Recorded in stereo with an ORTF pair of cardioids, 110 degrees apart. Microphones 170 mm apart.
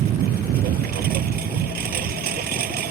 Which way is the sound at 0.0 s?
65° right.